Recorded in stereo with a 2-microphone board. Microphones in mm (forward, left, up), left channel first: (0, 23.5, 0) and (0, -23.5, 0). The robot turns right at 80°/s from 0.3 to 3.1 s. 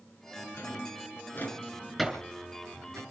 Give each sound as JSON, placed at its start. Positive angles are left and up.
{"t": 0.6, "sound": "a drawer", "side_deg": 65, "distance_m": 7.0}